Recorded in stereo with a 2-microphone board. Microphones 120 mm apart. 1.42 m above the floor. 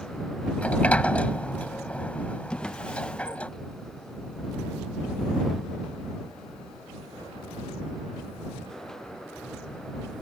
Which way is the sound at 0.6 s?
10° left (ahead or behind).